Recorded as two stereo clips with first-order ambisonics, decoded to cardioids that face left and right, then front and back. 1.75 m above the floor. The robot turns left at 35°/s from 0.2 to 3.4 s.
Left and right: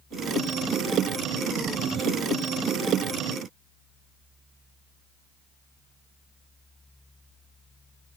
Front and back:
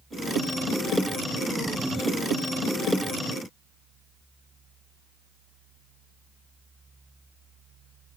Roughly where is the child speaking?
No child speaking in this recording.